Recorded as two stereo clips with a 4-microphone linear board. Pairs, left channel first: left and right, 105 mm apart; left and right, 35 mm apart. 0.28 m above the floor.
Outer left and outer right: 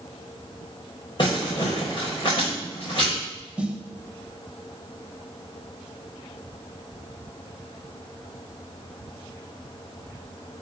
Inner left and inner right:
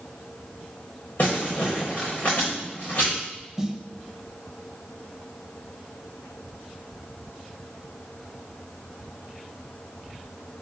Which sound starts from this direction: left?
Crumpling, at 1.2 s.